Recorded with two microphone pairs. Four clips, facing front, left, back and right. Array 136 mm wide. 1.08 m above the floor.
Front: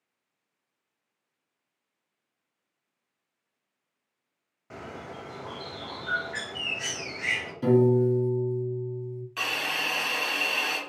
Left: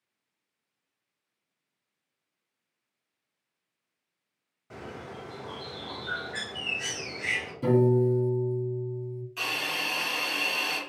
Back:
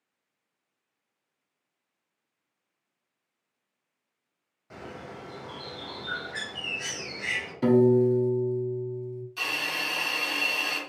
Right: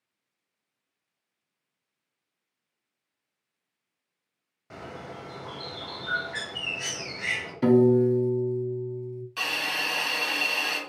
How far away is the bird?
About 0.9 m.